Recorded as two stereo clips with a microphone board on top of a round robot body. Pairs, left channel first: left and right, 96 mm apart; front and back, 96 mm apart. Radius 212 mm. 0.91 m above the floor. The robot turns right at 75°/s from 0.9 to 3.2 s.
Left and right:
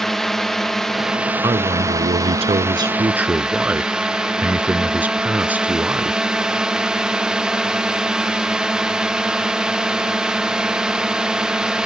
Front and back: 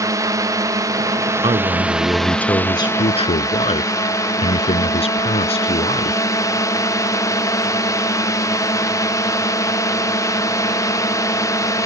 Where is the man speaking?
150° right; by 6.2 s 15° right.